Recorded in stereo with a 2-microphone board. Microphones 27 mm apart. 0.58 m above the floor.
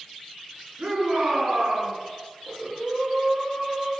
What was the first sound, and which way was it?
A shout, 60° right (ahead or behind).